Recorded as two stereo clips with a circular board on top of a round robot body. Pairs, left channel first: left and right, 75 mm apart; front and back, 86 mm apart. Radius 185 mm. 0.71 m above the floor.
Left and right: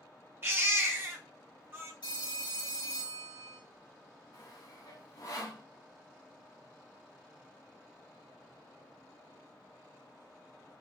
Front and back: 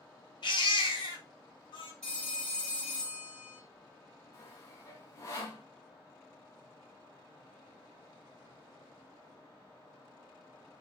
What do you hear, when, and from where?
0.4 s a baby crying: 30° right, 1.5 m
2.0 s a phone ringing: 80° left, 3 m
4.3 s sawing: 55° left, 1.6 m